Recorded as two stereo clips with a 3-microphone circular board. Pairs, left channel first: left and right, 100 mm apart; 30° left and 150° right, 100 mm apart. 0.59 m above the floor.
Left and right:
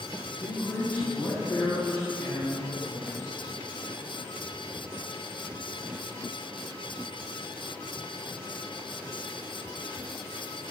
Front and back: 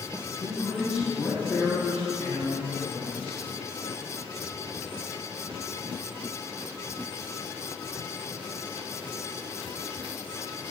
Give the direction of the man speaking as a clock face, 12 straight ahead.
8 o'clock.